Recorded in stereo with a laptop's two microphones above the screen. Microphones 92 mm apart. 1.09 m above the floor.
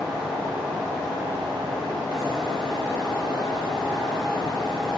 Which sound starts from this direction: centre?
A fan, at 0.0 s.